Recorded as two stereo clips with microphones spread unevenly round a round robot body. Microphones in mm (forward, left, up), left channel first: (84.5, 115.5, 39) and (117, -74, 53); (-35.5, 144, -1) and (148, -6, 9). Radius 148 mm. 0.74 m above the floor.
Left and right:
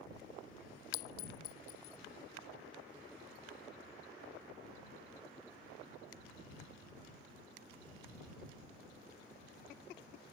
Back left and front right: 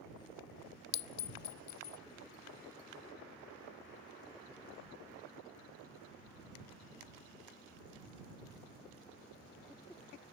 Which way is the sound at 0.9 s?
135° left.